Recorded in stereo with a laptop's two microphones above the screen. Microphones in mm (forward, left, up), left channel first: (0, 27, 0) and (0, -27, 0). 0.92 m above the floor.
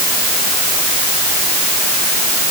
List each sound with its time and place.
Only background noise.